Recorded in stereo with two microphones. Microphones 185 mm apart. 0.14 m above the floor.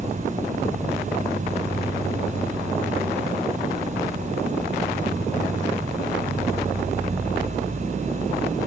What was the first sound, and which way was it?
An insect, 60° right (ahead or behind).